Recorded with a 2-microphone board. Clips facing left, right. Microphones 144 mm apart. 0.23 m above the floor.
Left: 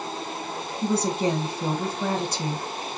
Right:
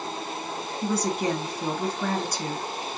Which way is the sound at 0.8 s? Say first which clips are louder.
Left 2 dB; 25° left (ahead or behind).